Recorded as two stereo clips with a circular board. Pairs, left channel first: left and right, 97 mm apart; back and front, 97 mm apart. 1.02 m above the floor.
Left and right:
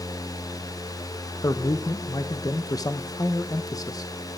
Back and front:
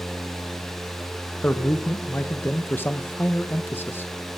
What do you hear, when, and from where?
1.4 s a man speaking: 120° left, 0.9 m